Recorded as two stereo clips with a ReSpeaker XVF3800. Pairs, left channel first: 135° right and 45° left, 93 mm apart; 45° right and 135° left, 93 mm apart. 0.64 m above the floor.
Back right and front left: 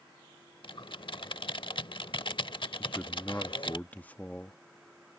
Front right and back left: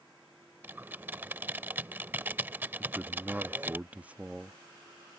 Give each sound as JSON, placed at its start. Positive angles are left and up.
{"t": 0.6, "sound": "typing on a keyboard", "azimuth_deg": -155}
{"t": 2.8, "sound": "a man speaking", "azimuth_deg": 180}